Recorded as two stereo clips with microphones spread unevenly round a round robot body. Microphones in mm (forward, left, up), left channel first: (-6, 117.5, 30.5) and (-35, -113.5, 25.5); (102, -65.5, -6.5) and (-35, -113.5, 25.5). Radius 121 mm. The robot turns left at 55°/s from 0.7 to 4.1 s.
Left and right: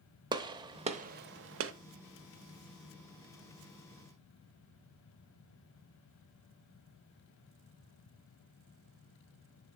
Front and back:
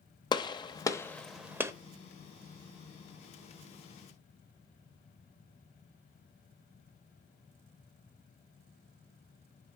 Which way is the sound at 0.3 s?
30° right.